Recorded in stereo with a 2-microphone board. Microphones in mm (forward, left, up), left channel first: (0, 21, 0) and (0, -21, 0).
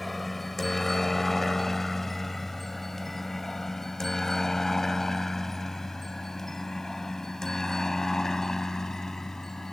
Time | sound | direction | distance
0.0 | a helicopter | centre (ahead or behind) | ?